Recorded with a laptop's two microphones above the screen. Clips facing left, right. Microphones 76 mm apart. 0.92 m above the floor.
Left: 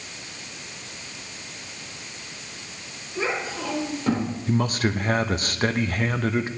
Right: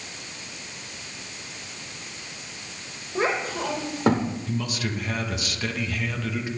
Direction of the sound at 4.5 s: 45° left (ahead or behind).